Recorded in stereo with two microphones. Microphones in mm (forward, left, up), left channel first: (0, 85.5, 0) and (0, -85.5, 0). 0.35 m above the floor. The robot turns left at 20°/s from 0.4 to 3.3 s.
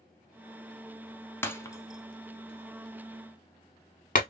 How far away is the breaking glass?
About 0.8 m.